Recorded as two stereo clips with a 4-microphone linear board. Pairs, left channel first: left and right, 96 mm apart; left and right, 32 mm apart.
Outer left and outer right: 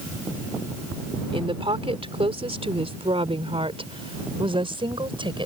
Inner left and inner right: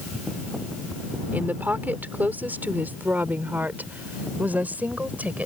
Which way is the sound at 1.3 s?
70° right (ahead or behind).